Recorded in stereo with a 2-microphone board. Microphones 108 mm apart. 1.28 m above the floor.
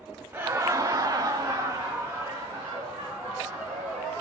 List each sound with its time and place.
0.3 s laughter: 20° right (ahead or behind), 0.6 m; by 4.2 s 15° right (ahead or behind), 2.5 m